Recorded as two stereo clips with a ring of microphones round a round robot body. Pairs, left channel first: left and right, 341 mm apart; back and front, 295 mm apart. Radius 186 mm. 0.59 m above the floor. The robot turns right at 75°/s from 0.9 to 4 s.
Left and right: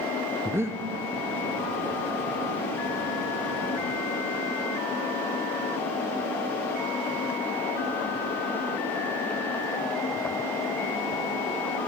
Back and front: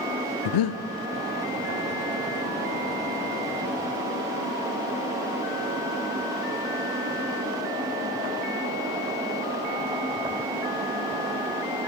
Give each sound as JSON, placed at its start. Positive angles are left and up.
{"t": 0.5, "sound": "breathing", "azimuth_deg": -175, "distance_m": 0.5}